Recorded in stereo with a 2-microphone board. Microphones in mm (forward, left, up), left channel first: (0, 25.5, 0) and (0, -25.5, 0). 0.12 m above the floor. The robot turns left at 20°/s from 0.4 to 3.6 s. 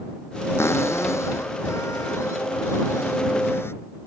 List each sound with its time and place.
0.6 s a cupboard door: 120° left; by 3.7 s 60° left